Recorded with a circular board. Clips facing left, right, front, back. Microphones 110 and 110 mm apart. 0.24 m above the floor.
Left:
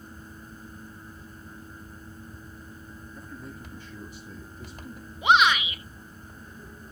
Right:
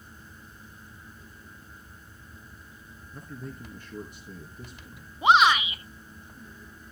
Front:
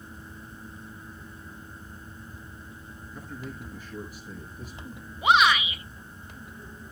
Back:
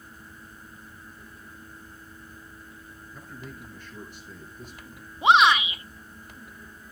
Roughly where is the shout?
Behind right.